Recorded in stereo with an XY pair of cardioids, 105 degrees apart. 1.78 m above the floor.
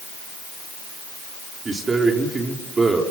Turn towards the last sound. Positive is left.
turn(degrees=-30)